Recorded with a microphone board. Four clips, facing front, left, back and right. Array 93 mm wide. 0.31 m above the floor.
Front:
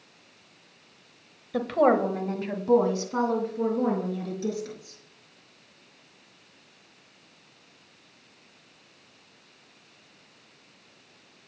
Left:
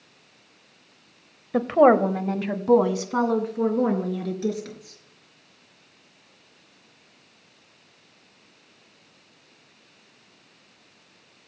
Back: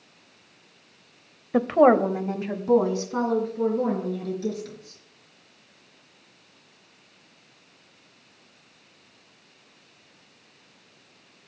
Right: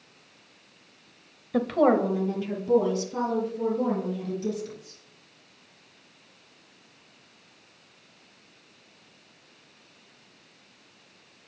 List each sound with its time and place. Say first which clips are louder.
1.5 s a woman speaking: left 5 dB, back 4 dB; 150° left, 1.0 m; by 5.0 s 85° left, 4.5 m